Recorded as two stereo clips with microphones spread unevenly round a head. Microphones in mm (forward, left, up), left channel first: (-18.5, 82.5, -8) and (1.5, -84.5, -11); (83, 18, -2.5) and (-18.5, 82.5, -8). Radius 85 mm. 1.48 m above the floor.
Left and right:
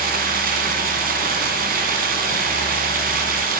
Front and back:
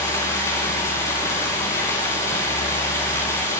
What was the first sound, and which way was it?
Running water, 100° right.